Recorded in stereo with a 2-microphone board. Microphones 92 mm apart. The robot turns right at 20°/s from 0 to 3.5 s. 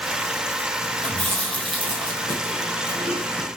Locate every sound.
1.0 s chewing: 70° right (ahead or behind), 2.5 m; by 3.5 s 45° right (ahead or behind), 2.5 m